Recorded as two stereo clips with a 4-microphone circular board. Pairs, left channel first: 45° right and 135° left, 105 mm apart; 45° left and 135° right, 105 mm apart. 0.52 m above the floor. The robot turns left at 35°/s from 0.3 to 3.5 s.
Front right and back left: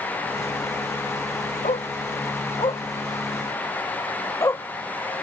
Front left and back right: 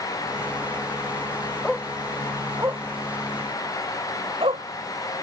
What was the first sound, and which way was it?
A dog barking, 40° right.